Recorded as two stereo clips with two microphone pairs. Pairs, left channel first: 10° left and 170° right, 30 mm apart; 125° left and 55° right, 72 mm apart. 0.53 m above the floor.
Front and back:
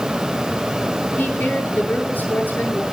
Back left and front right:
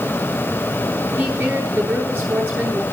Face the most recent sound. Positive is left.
turn(degrees=15)